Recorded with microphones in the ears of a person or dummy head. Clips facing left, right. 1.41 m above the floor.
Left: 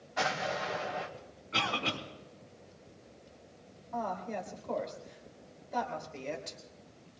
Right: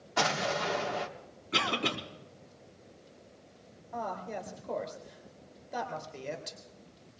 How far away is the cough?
About 4 m.